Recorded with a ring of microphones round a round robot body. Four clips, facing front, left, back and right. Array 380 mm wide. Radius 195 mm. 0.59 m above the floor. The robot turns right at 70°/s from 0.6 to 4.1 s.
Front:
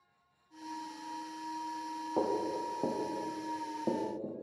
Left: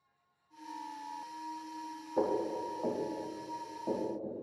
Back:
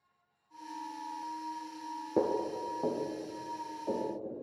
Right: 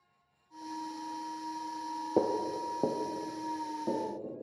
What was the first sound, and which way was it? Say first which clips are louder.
Footsteps: right 2 dB, back 2 dB; 120° right.